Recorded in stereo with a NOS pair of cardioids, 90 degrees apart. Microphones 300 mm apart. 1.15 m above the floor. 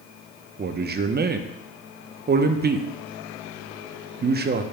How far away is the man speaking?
About 0.8 m.